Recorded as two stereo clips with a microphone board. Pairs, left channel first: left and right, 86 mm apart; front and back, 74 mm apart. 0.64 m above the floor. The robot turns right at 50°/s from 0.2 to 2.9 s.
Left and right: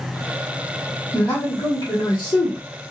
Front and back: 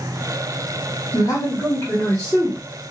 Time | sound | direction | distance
1.1 | a man speaking | 15° left | 1.5 m